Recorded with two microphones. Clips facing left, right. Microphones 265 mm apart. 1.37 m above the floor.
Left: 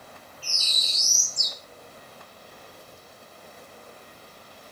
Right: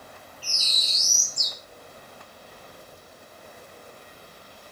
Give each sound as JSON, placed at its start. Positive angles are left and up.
{"t": 0.4, "sound": "a bird", "side_deg": 55, "distance_m": 1.5}